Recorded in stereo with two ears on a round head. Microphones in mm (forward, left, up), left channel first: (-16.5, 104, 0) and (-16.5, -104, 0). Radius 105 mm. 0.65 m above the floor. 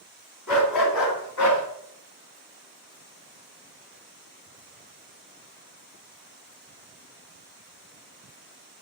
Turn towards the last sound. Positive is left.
turn(degrees=85)